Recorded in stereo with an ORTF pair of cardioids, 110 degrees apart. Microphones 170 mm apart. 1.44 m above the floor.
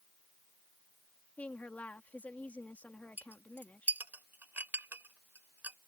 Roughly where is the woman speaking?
Ahead.